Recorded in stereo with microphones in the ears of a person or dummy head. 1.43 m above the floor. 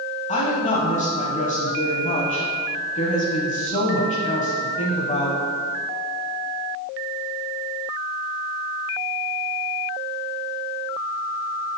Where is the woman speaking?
35° left (ahead or behind), 1.2 m.